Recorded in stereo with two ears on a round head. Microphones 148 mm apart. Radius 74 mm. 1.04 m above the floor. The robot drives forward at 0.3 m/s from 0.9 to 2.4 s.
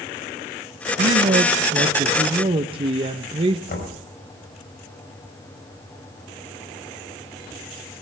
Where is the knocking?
60° left (ahead or behind), 5 m.